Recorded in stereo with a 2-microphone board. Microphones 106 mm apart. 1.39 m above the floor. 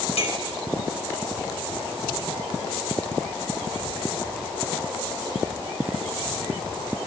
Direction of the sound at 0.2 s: 70° left (ahead or behind).